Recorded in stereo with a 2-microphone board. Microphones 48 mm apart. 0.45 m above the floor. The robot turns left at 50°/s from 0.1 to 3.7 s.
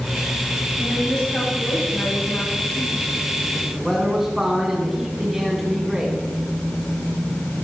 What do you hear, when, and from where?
0.8 s a woman speaking: straight behind, 9 m; by 3.1 s 65° left, 9 m
3.7 s a man speaking: 10° right (ahead or behind), 5 m